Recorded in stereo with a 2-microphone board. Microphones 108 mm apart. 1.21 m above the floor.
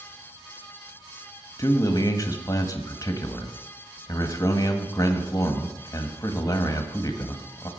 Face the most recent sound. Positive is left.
turn(degrees=30)  # may be behind; listen again after turning